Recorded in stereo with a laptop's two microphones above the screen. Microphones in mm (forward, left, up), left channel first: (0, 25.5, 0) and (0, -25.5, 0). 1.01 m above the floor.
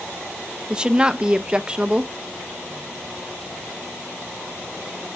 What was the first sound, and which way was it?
A woman speaking, 15° right (ahead or behind).